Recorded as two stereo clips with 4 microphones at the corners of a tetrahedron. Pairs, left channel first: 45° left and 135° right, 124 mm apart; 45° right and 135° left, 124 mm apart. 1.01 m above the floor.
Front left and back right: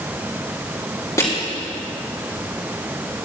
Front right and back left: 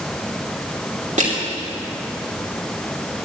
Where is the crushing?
110° left, 2.5 m.